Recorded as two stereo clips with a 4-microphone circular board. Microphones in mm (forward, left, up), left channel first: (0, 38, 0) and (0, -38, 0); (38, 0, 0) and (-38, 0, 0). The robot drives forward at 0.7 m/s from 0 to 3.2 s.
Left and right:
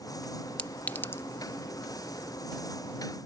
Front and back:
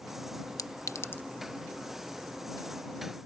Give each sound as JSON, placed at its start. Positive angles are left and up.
{"t": 0.6, "sound": "a clink", "azimuth_deg": 20}